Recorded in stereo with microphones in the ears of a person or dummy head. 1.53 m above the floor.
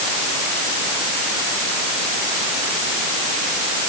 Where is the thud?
I don't hear a thud.